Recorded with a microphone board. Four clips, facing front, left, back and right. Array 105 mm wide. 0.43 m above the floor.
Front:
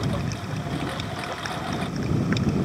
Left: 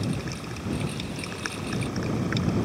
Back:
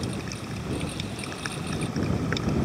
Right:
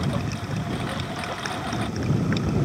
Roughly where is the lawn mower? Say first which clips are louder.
Right 3 dB, front 4 dB; ahead right.